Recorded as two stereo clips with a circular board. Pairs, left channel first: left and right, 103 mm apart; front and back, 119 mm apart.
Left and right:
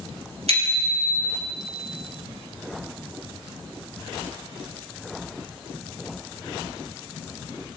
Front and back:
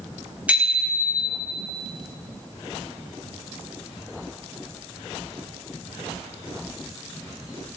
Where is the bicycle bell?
100° right, 5.5 m; by 1.5 s 95° right, 5.5 m.